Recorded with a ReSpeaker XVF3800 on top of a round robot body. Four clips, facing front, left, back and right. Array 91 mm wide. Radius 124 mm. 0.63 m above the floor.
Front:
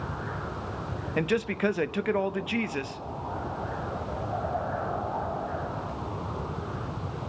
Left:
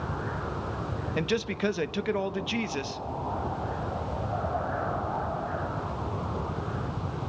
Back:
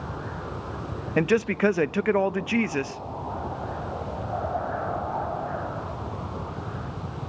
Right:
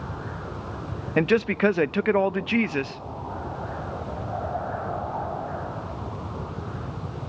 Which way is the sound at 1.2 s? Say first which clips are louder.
Right 8 dB, back 5 dB; 115° right.